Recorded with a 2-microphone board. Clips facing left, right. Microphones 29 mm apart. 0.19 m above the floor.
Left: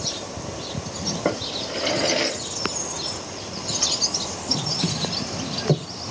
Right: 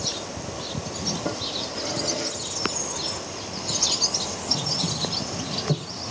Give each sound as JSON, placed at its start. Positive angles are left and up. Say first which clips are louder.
{"t": 1.2, "sound": "a drawer", "louder": "left 3 dB", "side_deg": 50, "distance_m": 1.3}